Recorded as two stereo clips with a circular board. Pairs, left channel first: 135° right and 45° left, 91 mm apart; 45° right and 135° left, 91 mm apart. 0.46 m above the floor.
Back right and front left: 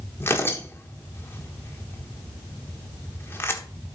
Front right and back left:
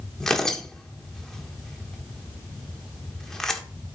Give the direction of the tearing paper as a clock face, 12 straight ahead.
4 o'clock.